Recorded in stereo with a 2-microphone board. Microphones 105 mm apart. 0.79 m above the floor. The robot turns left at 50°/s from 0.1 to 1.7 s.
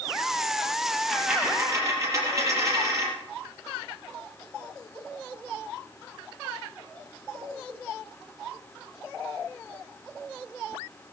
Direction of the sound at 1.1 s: Straight ahead.